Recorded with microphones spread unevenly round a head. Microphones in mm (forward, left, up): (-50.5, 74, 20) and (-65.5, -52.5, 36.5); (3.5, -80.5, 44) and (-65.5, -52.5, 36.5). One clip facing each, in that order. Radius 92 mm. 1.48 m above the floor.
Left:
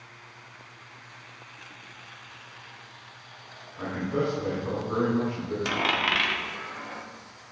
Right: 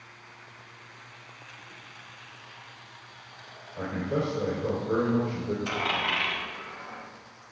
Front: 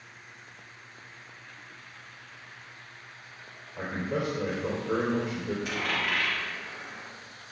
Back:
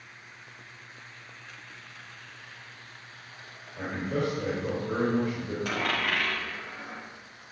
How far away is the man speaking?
About 4.5 m.